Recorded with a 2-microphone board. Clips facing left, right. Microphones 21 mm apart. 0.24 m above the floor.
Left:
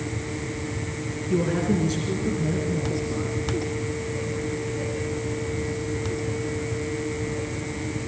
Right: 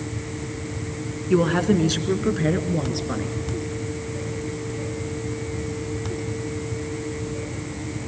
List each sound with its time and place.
1.3 s a woman speaking: 45° right (ahead or behind), 2.5 m; by 3.4 s 65° right (ahead or behind), 3.5 m